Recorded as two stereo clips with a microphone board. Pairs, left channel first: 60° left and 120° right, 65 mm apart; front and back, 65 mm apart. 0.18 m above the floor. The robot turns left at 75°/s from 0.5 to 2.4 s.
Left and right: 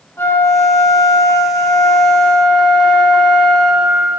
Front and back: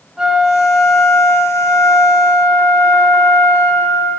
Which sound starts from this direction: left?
A flute, at 0.2 s.